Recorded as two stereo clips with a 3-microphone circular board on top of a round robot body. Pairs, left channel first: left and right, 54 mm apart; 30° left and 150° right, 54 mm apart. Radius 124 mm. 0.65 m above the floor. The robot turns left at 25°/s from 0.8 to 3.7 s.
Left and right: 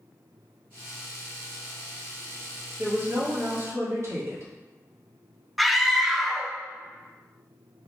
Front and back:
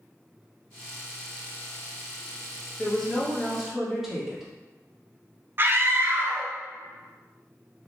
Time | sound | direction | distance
2.8 | a woman speaking | 45° right | 1.6 m
5.6 | a scream | straight behind | 0.7 m